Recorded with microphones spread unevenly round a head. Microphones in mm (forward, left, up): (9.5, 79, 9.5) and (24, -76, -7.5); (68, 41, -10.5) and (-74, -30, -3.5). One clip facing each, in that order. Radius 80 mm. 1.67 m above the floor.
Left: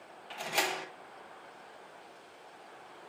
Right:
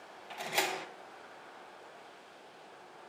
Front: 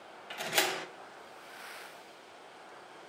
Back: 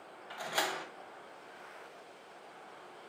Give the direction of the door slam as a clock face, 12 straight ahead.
12 o'clock.